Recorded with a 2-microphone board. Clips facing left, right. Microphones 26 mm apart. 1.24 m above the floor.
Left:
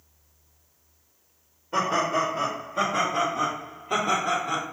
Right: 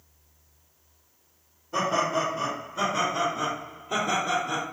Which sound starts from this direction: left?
Laughter, at 1.7 s.